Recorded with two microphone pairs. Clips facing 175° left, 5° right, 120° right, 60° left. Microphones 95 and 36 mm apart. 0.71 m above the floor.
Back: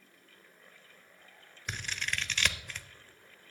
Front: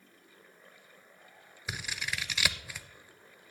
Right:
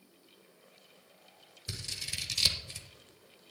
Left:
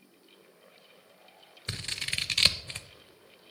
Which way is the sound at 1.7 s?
75° left.